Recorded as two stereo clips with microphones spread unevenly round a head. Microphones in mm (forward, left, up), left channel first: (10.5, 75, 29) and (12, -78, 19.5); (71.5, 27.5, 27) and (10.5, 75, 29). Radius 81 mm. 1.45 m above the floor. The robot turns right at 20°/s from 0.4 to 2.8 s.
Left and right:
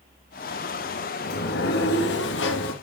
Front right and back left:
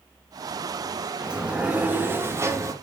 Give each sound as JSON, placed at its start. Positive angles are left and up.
{"t": 1.2, "sound": "a sliding door", "azimuth_deg": 60, "distance_m": 1.9}